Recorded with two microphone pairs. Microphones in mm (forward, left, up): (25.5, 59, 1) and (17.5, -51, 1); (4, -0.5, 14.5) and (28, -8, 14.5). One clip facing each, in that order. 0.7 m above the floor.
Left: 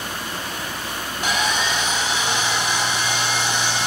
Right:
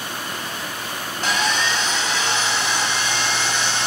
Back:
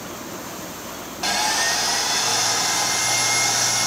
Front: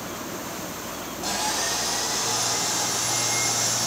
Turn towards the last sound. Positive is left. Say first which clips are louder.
# even, back 6 dB
turn(degrees=165)